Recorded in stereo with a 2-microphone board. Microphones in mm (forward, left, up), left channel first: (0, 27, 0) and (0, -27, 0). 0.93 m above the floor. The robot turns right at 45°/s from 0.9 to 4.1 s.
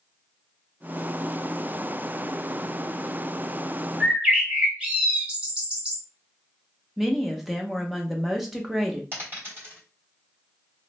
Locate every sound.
4.0 s a bird: 20° right (ahead or behind), 1.2 m; by 6.0 s 15° right (ahead or behind), 1.2 m
7.0 s a woman speaking: 5° right (ahead or behind), 0.7 m
9.1 s a dropped coin: 40° right (ahead or behind), 2 m